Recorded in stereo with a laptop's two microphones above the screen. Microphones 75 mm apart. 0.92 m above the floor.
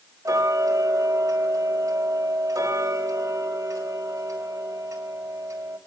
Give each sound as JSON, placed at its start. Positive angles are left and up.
{"t": 0.2, "sound": "ticking", "side_deg": -45, "distance_m": 4.5}